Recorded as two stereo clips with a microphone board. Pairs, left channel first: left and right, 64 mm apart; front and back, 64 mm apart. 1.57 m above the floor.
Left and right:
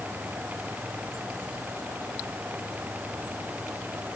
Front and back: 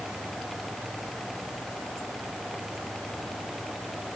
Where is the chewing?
I don't hear chewing.